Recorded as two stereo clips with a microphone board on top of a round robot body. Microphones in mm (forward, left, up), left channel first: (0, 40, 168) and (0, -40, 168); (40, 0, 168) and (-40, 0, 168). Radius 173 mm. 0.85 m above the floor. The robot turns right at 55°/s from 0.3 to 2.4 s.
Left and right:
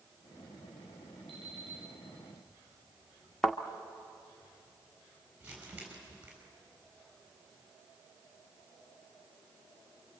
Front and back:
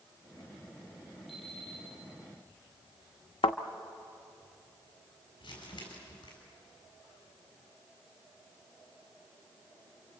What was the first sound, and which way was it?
An alarm clock, 85° right.